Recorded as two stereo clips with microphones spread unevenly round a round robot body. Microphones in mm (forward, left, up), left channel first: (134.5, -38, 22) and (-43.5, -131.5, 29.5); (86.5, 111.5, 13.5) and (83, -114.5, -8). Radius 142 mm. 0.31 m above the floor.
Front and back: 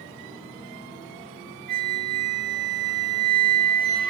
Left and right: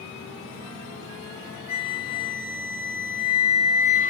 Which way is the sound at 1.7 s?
155° left.